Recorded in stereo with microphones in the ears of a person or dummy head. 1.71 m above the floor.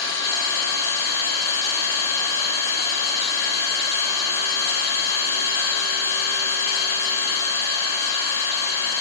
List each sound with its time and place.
0.0 s an engine running: 30° left (ahead or behind), 2.5 m